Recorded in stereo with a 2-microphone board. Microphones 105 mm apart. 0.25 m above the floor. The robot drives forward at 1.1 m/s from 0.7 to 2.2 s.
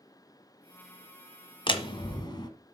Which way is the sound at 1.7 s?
50° left (ahead or behind).